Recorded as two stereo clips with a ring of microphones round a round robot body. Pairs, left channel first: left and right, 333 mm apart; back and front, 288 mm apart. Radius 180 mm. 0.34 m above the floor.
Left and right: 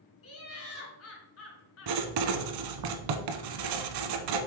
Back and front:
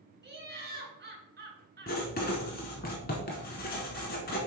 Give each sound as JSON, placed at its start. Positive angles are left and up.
{"t": 0.2, "sound": "laughter", "azimuth_deg": 50, "distance_m": 3.0}
{"t": 1.9, "sound": "writing", "azimuth_deg": -115, "distance_m": 0.7}